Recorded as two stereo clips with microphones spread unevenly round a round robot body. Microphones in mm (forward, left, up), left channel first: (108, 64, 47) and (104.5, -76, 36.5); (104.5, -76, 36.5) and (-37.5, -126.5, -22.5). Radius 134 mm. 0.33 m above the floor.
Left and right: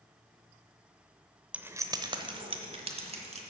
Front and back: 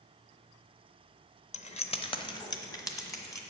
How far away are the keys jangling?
About 0.7 m.